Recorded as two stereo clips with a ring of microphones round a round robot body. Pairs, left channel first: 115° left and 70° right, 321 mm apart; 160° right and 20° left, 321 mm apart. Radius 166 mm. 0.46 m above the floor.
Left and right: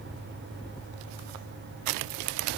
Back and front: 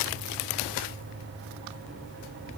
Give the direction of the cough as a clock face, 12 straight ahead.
No cough in this recording.